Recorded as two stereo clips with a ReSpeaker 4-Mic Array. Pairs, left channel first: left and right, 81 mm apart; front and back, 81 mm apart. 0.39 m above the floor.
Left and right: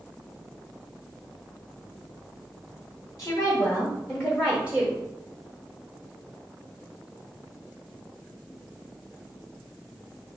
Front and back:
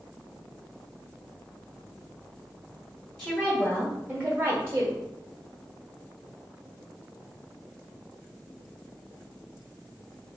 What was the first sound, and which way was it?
A woman speaking, 75° left.